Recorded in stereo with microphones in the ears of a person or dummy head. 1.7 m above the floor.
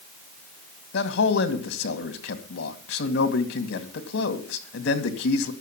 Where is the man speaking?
60° left (ahead or behind), 2 m.